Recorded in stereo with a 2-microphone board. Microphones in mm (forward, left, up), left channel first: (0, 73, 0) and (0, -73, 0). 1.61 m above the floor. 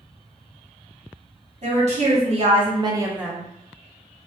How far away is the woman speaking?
About 1.1 m.